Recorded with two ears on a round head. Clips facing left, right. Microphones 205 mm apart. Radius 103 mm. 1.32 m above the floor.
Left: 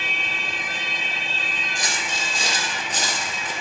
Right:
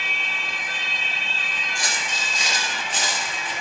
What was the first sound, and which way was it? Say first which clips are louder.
Footsteps: left 1 dB; 20° left (ahead or behind).